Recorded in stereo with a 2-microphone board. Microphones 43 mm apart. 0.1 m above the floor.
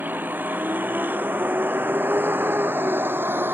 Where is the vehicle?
50° right (ahead or behind); by 3.5 s 65° right (ahead or behind).